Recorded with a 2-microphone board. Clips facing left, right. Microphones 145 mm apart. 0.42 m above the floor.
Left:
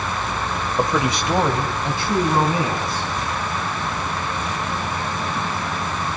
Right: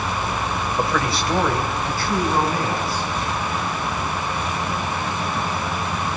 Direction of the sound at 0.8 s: 15° left (ahead or behind).